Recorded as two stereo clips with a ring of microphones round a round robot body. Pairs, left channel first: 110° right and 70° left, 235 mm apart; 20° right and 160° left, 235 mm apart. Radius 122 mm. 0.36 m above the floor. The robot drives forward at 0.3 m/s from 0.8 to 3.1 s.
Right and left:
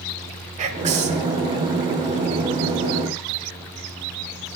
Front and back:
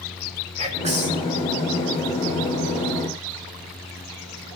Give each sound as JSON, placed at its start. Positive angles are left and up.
{"t": 0.6, "sound": "whispering", "azimuth_deg": 110, "distance_m": 1.4}